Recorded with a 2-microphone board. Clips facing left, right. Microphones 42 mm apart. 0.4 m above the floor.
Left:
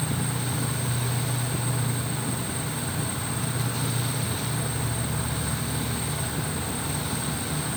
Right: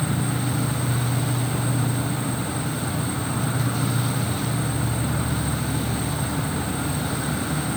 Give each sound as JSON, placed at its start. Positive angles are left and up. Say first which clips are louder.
{"t": 0.0, "sound": "an insect", "louder": "right 4 dB", "side_deg": -35, "distance_m": 1.5}